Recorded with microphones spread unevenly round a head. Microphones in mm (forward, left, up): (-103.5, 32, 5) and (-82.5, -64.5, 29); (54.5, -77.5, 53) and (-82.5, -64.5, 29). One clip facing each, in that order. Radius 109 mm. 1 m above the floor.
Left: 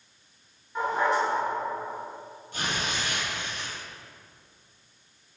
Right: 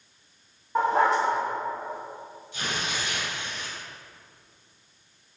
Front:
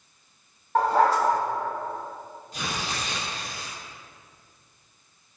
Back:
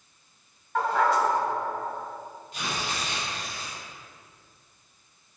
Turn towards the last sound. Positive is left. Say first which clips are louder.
# left 1 dB, front 1 dB
turn(degrees=55)